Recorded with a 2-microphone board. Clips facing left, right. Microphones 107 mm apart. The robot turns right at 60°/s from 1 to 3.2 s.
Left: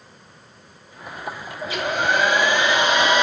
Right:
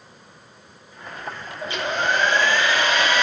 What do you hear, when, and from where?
1.6 s a hair dryer: centre (ahead or behind), 1.0 m; by 3.2 s 20° left (ahead or behind), 1.0 m